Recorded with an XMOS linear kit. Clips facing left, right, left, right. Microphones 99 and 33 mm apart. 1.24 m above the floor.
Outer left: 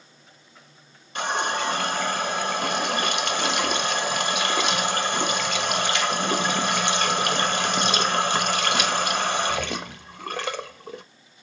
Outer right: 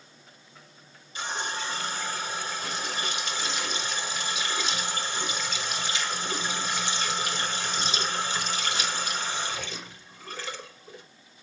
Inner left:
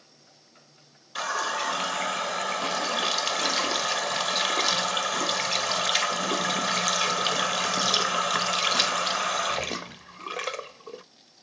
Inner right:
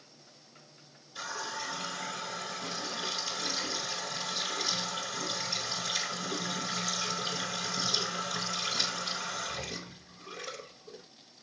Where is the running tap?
65° left (ahead or behind), 0.8 m.